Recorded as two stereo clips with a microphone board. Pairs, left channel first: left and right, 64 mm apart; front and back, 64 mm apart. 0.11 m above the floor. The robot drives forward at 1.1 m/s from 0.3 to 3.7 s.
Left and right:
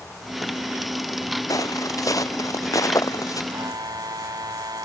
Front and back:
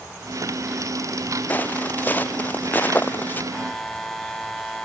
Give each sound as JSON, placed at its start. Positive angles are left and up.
{"t": 1.5, "sound": "footsteps", "azimuth_deg": 60}
{"t": 3.5, "sound": "a buzzer", "azimuth_deg": -80}